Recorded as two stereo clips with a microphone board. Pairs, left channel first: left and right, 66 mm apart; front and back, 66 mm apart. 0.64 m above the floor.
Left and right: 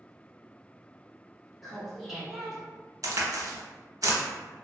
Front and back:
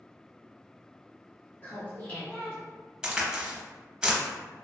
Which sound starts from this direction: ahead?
Laughter, at 1.6 s.